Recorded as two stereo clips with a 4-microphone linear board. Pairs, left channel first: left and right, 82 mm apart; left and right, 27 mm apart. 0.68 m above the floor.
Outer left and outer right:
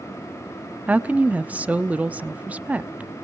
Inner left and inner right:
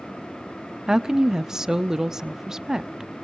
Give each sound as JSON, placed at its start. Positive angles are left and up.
{"t": 0.9, "sound": "a woman speaking", "side_deg": -20, "distance_m": 0.7}